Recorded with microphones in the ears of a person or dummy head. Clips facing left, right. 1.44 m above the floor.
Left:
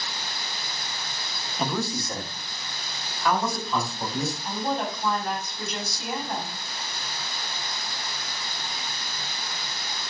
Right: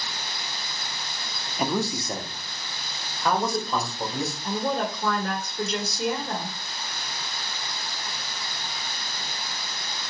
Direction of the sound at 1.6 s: 10° right (ahead or behind).